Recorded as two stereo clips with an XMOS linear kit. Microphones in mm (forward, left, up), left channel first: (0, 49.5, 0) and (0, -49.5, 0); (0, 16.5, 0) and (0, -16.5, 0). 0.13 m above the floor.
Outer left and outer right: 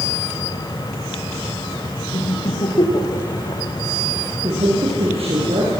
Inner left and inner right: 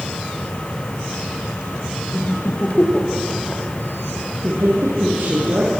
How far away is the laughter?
About 6 m.